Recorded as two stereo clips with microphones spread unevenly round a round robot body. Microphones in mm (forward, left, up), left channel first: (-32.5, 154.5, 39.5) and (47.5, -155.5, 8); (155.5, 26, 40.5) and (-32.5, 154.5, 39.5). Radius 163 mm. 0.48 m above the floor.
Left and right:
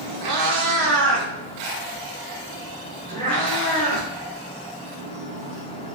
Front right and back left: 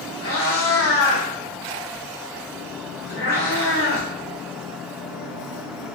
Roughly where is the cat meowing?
Right.